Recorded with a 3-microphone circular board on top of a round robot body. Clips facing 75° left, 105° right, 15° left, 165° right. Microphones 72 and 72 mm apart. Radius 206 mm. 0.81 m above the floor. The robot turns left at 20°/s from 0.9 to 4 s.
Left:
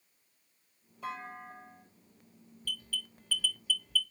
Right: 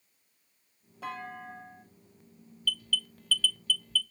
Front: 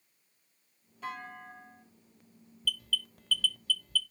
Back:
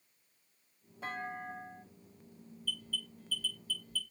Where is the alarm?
15° left, 0.6 m; by 4.0 s 10° right, 0.6 m.